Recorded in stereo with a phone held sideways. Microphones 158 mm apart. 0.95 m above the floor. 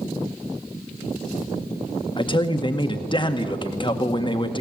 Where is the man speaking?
30° left (ahead or behind), 1.8 m.